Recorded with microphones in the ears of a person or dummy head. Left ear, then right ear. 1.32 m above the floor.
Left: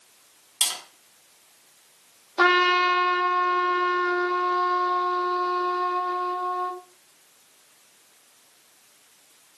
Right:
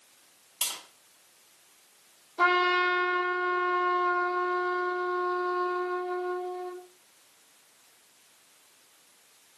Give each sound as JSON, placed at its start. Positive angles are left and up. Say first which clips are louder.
{"t": 0.6, "sound": "tapping", "louder": "left 8 dB", "side_deg": 30, "distance_m": 1.3}
{"t": 2.4, "sound": "a trumpet", "louder": "left 5 dB", "side_deg": 50, "distance_m": 1.2}